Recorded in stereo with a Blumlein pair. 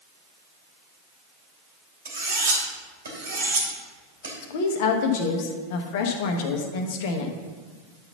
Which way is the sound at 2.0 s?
70° right.